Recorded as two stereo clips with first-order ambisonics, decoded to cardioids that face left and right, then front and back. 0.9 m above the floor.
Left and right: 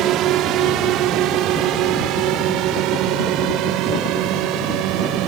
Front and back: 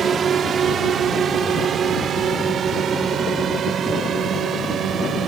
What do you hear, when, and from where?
0.0 s a drone: 120° right